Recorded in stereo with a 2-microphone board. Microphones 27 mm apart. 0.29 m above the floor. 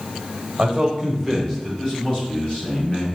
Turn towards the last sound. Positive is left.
turn(degrees=35)  # may be behind; listen again after turning